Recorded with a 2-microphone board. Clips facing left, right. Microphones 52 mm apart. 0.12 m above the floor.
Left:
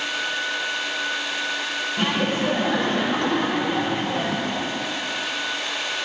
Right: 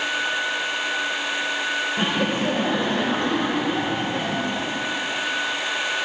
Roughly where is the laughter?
Right.